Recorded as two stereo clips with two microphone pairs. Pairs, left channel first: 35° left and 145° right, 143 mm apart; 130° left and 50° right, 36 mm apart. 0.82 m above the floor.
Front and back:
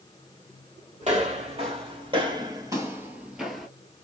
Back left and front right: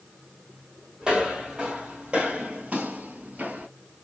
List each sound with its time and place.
1.0 s footsteps: 115° right, 1.9 m; by 3.7 s 55° right, 1.1 m